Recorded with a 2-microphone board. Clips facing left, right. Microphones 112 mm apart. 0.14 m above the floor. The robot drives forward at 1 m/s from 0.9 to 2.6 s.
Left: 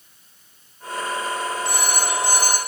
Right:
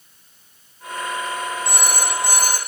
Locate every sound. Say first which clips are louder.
1.6 s a phone ringing: even; 40° right (ahead or behind), 5.5 m; by 2.6 s 50° right (ahead or behind), 5 m